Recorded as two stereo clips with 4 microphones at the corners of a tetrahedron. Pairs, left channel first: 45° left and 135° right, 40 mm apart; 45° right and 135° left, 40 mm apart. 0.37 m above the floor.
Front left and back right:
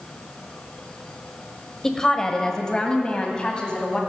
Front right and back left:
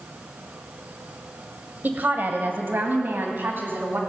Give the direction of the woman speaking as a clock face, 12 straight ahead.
8 o'clock.